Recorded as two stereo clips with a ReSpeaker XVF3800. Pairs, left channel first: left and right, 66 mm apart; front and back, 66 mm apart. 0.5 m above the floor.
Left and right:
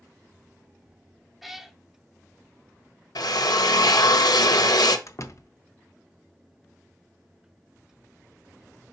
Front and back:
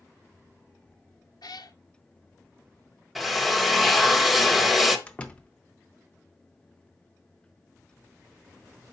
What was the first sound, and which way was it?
A cat meowing, straight ahead.